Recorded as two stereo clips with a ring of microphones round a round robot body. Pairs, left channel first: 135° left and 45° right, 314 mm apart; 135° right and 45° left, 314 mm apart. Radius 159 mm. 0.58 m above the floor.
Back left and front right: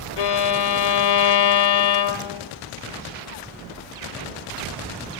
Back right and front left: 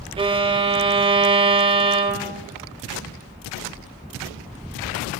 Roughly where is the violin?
Behind left.